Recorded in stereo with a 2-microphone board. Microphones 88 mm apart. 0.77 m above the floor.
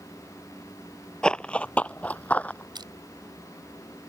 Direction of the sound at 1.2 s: 10° left (ahead or behind).